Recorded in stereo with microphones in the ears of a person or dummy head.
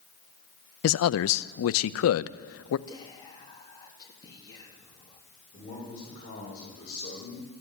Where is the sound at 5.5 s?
35° left (ahead or behind), 7.5 m.